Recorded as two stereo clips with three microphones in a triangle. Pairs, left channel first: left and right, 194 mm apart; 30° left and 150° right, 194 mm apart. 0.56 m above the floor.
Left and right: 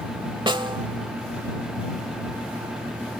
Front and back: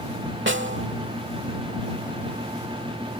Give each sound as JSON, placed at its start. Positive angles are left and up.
{"t": 0.5, "sound": "a snare drum", "azimuth_deg": -155}